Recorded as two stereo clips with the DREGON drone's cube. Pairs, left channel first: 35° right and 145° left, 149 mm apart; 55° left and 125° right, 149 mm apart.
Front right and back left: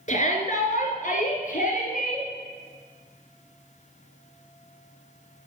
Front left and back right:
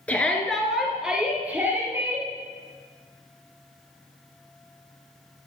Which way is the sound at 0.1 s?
20° right.